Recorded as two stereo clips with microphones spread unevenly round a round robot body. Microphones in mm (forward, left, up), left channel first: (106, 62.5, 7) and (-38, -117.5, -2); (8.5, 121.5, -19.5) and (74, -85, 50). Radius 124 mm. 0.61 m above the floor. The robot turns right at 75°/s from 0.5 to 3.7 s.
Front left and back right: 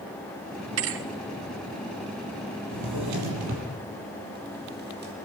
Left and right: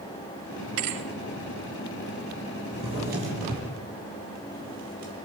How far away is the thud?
About 2 m.